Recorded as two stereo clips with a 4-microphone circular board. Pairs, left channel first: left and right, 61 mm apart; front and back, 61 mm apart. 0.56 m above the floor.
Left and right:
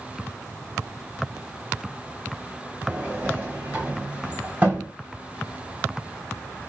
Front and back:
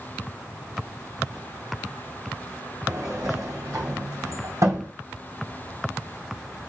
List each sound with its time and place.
2.9 s a sliding door: 155° right, 1.9 m